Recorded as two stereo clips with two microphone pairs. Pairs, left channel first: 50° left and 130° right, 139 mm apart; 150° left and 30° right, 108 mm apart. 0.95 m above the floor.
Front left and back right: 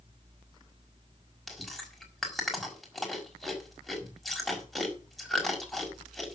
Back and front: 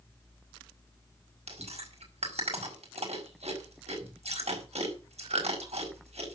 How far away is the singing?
No singing in this recording.